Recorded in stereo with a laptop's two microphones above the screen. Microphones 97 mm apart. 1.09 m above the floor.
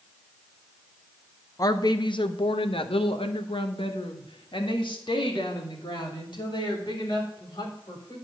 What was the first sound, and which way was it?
A woman speaking, 40° left (ahead or behind).